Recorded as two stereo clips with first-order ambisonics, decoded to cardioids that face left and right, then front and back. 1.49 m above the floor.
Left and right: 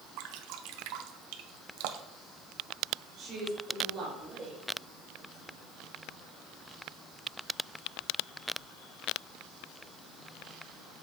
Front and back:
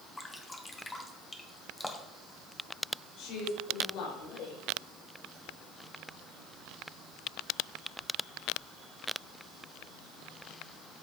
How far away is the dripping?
About 0.9 m.